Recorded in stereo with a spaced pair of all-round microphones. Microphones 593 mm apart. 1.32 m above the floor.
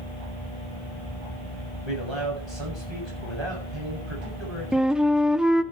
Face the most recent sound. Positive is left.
turn(degrees=0)  # may be behind; listen again after turning